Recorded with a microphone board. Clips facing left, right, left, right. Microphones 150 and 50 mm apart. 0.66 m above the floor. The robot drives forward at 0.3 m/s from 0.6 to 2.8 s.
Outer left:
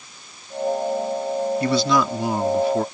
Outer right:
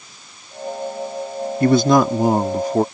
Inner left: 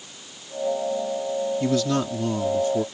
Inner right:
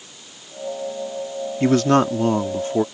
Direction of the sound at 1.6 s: 50° right (ahead or behind).